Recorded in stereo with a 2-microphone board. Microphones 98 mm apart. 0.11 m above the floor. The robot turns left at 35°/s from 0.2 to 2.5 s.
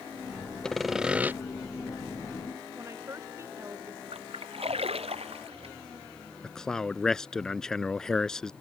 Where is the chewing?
No chewing in this recording.